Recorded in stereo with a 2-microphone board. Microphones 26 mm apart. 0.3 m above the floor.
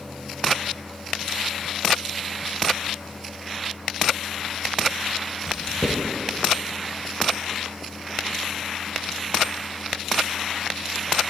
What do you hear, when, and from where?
5.5 s writing: 20° right (ahead or behind), 1.2 m